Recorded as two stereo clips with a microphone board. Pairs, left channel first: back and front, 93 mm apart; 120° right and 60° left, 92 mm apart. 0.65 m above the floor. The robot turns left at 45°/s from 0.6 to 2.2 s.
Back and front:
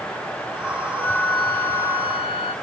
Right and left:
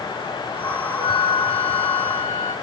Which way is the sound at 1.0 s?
100° right.